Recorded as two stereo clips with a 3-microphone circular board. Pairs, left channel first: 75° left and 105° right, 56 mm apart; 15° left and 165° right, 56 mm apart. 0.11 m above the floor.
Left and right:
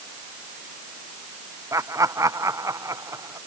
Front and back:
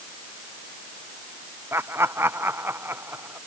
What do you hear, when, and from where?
1.7 s laughter: 125° right; by 3.4 s 120° right